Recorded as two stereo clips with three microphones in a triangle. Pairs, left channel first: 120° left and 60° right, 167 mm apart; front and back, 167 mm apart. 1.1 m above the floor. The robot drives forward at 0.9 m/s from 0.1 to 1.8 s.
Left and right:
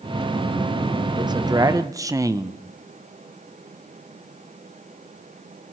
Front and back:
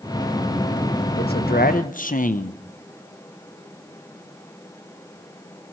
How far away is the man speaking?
About 1.2 m.